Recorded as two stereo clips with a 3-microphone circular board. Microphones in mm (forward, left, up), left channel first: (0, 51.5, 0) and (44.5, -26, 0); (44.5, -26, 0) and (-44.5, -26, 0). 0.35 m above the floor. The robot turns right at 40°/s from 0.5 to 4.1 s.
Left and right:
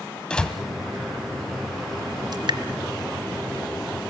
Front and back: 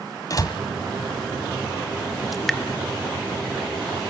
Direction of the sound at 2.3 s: 90° right.